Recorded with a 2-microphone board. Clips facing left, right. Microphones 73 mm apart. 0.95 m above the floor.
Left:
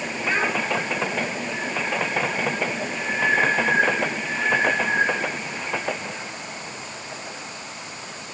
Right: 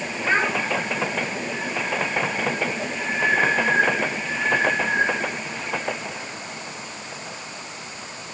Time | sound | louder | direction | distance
0.2 | a child speaking | right 2 dB | 35° right (ahead or behind) | 5.5 m